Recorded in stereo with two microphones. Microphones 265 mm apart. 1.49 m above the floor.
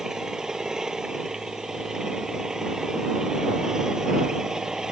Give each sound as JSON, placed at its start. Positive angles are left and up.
{"t": 0.0, "sound": "an engine running", "side_deg": 0}